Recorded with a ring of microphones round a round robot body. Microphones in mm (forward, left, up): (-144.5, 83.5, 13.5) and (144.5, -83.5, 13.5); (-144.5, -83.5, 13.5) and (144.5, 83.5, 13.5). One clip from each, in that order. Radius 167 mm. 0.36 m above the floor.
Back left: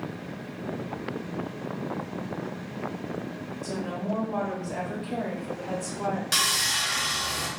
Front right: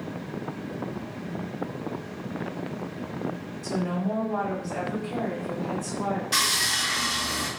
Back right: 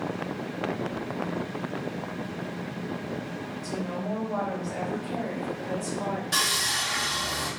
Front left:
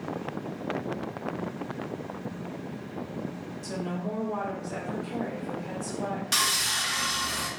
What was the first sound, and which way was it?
A woman speaking, 75° left.